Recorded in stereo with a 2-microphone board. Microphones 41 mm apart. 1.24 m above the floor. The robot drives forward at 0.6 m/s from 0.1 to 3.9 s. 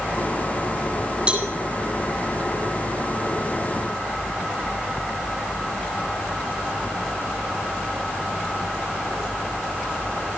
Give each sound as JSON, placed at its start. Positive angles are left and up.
{"t": 1.3, "sound": "a cowbell", "side_deg": -25, "distance_m": 8.0}